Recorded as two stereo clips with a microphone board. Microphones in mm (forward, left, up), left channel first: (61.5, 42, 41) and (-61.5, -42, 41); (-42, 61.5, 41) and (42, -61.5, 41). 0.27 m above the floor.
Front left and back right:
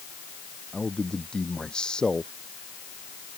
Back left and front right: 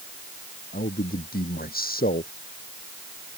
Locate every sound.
0.7 s a man speaking: 120° left